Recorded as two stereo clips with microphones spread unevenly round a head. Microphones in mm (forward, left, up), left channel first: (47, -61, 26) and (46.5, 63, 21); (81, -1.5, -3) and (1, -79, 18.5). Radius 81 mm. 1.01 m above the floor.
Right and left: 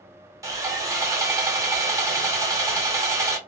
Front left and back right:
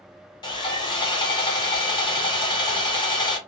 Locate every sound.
0.4 s sawing: 35° left, 0.8 m